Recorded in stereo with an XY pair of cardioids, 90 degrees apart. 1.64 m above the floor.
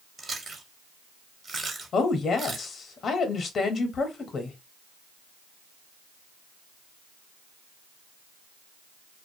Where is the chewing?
40° right, 1.0 m.